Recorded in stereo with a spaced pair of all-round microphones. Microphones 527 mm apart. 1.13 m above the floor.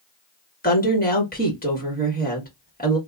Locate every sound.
0.6 s a woman speaking: 15° left (ahead or behind), 1.6 m